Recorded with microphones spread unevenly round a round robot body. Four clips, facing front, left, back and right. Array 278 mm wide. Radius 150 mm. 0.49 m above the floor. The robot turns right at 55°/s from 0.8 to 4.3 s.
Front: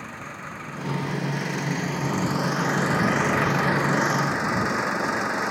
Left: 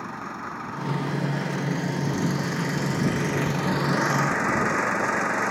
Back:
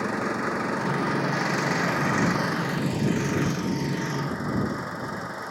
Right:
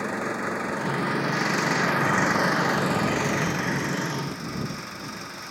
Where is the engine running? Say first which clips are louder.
Right 5 dB, back 10 dB; 160° right; by 5.5 s 35° left.